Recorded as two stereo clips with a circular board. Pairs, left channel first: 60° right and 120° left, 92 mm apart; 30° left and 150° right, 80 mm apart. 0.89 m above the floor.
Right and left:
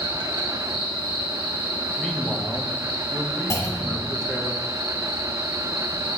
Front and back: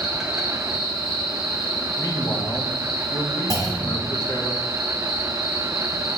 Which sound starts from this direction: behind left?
An insect, at 0.0 s.